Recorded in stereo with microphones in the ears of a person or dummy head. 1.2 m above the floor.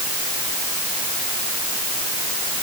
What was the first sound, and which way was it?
Only background noise.